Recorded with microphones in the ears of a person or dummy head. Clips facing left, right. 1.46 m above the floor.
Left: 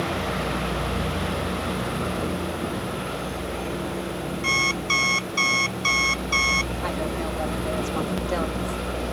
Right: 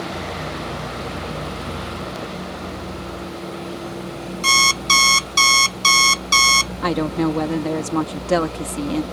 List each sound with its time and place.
4.4 s an alarm clock: 55° right (ahead or behind)
6.8 s a woman speaking: 70° right (ahead or behind)